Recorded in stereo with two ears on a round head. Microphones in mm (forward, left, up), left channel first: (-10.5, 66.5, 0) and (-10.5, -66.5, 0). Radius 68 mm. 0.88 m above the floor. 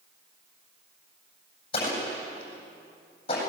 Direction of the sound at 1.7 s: 35° left (ahead or behind).